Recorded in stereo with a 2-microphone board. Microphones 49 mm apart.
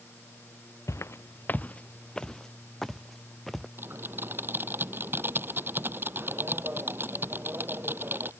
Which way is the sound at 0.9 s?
80° left.